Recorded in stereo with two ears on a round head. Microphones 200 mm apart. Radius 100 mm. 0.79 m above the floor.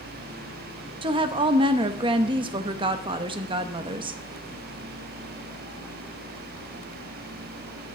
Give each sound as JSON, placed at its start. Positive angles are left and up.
{"t": 1.0, "sound": "a woman speaking", "side_deg": -20, "distance_m": 0.8}